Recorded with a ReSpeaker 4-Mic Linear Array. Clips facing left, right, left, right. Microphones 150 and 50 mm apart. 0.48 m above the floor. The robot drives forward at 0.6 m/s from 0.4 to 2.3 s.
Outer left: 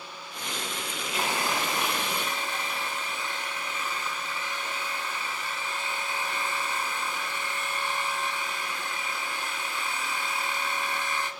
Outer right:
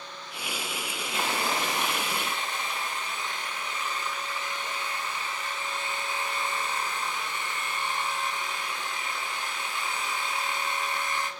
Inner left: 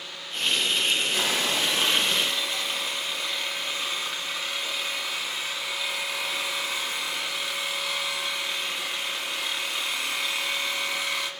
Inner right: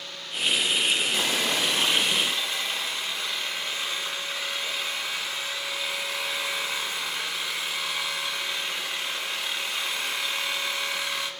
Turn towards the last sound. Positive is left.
turn(degrees=5)  # may be behind; listen again after turning